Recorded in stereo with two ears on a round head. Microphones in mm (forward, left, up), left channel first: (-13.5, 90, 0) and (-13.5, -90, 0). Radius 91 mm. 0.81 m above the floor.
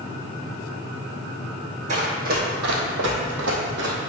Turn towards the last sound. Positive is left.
turn(degrees=-55)  # may be behind; listen again after turning